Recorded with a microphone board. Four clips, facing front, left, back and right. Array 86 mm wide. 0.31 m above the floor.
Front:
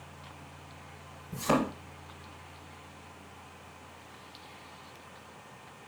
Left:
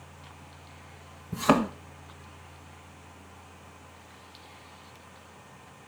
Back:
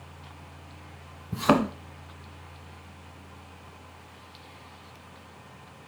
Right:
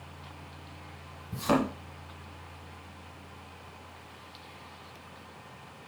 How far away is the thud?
About 1.8 m.